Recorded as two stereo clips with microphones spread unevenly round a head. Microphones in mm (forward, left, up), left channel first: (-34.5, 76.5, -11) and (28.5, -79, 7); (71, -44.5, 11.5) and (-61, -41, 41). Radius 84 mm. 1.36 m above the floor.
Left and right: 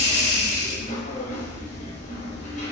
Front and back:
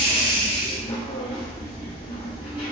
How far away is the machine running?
About 3.5 m.